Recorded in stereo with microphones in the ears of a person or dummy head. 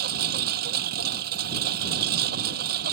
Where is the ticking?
No ticking in this recording.